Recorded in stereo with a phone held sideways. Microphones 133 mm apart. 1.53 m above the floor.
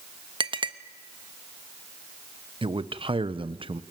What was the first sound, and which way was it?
A clink, 40° right (ahead or behind).